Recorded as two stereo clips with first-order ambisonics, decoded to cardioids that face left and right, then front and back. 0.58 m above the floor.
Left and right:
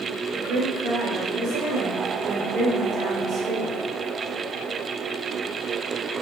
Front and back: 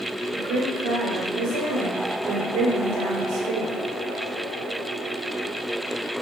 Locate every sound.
0.3 s a woman speaking: 135° right, 1.7 m